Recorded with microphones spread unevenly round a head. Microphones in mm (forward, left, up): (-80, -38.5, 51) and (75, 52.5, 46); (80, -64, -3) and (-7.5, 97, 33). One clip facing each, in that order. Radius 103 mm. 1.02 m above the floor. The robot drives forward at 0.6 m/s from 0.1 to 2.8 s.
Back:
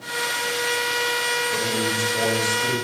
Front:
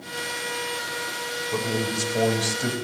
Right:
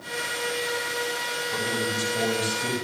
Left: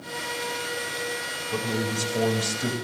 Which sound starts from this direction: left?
A man speaking, at 1.5 s.